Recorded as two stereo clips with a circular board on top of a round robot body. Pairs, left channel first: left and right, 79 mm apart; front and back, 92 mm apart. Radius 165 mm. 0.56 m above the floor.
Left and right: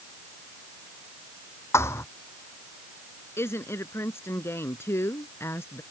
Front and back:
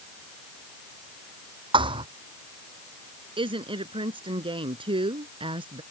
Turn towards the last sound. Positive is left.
turn(degrees=150)